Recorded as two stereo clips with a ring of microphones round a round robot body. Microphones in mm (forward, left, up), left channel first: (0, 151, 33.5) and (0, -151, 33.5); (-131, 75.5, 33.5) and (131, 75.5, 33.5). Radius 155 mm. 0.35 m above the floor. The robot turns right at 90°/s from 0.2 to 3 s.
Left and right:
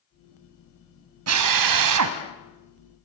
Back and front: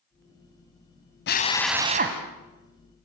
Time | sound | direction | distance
1.3 | a drill | 130° right | 1.9 m